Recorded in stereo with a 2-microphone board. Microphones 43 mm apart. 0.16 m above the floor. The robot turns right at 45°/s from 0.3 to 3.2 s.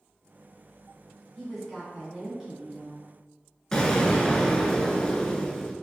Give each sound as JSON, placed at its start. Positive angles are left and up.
{"t": 1.4, "sound": "a woman speaking", "side_deg": 5, "distance_m": 1.3}
{"t": 3.7, "sound": "an explosion", "side_deg": 15, "distance_m": 0.6}